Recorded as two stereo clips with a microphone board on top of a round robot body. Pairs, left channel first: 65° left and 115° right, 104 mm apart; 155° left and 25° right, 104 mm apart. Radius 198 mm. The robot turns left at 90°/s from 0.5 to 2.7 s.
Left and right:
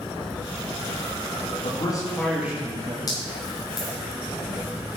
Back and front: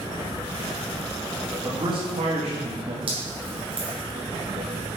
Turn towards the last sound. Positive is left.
turn(degrees=15)